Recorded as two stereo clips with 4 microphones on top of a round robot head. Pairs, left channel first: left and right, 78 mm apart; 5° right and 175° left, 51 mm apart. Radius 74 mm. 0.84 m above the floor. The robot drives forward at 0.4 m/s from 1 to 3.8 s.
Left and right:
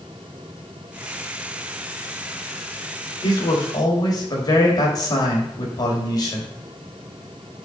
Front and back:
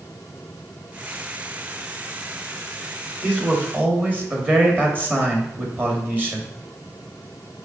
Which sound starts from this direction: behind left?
A man speaking, at 3.2 s.